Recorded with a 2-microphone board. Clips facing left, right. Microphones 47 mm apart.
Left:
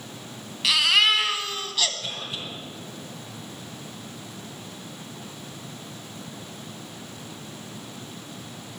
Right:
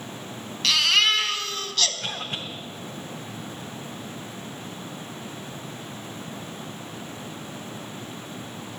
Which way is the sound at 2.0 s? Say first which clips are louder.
Right 2 dB; 50° right (ahead or behind).